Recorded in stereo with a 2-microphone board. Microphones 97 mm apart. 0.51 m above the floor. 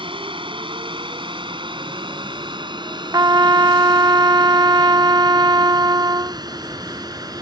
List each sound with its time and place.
0.0 s a drone: 60° right (ahead or behind); by 7.4 s 40° right (ahead or behind)
3.1 s a trumpet: 40° right (ahead or behind)